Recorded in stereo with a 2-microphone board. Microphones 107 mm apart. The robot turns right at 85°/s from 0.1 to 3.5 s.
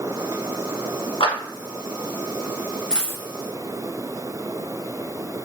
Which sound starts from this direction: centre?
A dropped coin, at 2.9 s.